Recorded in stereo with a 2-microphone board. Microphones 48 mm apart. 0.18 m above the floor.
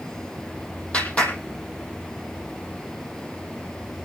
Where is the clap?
25° left (ahead or behind), 6 m.